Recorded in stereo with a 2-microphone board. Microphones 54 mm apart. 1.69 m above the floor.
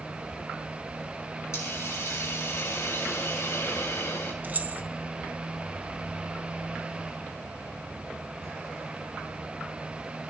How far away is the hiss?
About 2.5 m.